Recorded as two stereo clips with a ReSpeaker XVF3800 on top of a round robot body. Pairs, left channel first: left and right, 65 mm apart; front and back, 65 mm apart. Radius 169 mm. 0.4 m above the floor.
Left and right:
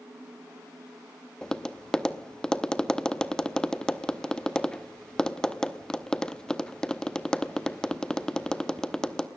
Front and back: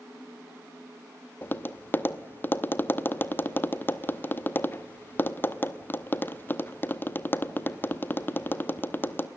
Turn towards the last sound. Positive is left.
turn(degrees=20)